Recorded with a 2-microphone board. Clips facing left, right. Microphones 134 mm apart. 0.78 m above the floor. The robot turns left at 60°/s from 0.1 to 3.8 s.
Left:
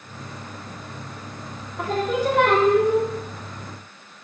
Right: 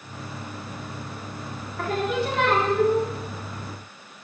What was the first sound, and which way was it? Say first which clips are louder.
Singing: left 2 dB; 160° left.